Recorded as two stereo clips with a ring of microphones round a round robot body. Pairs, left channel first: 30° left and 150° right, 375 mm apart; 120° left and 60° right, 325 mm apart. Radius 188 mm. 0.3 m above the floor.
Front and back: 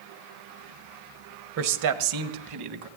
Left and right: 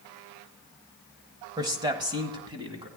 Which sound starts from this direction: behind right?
A man speaking, at 1.6 s.